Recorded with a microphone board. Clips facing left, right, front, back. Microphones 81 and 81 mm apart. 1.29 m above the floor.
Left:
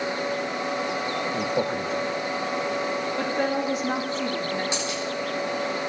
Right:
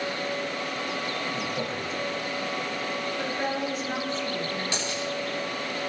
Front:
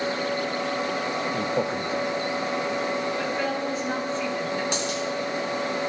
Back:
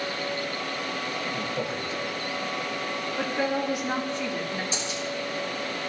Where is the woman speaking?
105° left, 2.5 m.